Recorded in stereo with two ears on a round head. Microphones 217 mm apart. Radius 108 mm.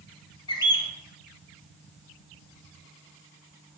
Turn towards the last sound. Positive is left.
turn(degrees=20)  # may be behind; listen again after turning